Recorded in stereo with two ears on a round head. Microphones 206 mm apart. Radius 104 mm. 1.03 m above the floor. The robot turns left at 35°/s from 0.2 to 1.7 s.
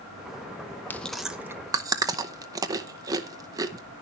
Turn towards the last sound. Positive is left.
turn(degrees=-15)  # may be behind; listen again after turning